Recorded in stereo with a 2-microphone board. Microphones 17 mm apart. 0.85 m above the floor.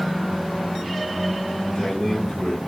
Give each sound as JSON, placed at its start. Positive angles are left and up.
{"t": 1.6, "sound": "a man speaking", "side_deg": 70, "distance_m": 4.0}